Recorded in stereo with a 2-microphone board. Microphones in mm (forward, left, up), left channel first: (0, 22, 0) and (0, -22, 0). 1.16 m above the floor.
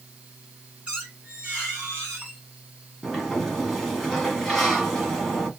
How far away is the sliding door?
About 1.5 m.